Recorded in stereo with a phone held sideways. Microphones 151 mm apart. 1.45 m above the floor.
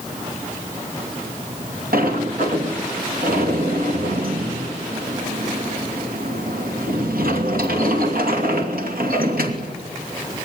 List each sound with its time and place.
1.9 s a sliding door: 75° right (ahead or behind), 2.5 m